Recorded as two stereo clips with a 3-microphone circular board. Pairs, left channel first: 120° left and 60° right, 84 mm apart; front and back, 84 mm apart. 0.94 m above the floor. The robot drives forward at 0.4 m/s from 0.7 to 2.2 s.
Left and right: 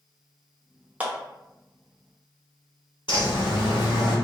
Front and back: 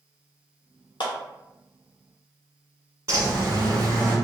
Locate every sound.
1.0 s a clap: 10° left, 0.6 m; by 1.1 s 15° left, 0.6 m
3.1 s a bird: 140° left, 1.3 m